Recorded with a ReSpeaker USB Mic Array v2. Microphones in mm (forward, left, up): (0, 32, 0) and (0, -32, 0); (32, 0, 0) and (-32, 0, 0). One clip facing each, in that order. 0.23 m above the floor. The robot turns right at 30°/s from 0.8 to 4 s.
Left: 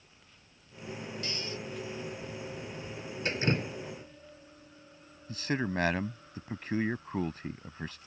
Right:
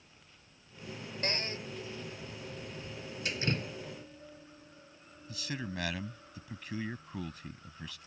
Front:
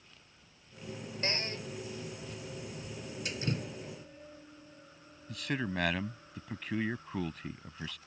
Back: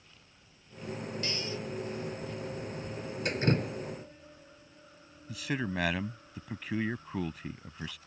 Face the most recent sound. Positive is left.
turn(degrees=95)